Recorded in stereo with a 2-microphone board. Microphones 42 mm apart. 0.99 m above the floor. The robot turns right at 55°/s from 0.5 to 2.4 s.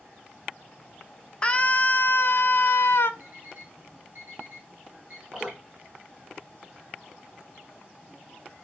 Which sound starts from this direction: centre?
Dripping, at 5.3 s.